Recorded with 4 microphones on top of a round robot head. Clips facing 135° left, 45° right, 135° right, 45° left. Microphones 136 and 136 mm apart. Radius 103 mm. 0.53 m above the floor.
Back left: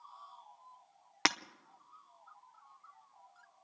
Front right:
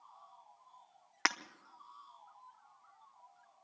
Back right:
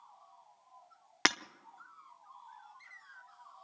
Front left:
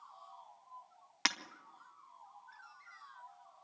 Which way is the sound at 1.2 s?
160° right.